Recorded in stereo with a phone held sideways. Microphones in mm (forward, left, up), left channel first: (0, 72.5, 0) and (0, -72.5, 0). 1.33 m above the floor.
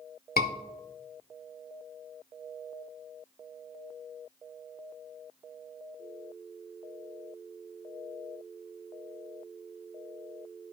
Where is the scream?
90° left, 0.7 m.